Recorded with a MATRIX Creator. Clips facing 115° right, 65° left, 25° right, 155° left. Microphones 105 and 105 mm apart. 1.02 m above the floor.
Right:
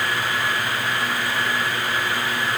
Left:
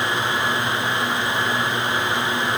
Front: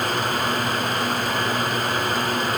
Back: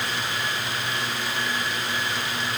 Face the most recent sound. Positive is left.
No sound to turn to.